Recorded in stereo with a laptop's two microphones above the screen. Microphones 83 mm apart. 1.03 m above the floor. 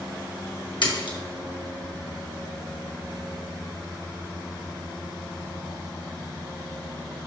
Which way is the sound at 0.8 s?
65° left (ahead or behind).